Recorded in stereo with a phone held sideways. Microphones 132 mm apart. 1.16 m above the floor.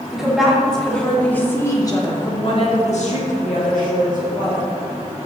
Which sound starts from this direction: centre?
A woman speaking, at 0.1 s.